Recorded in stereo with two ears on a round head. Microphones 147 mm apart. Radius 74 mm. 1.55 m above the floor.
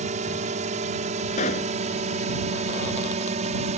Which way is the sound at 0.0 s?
45° right (ahead or behind).